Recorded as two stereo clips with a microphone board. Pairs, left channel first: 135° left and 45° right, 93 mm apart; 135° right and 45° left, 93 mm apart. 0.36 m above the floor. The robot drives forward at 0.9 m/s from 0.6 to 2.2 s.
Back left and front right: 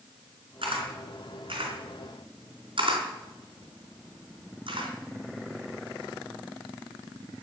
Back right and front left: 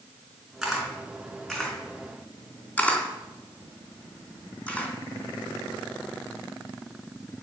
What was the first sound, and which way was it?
A camera shutter, 40° right.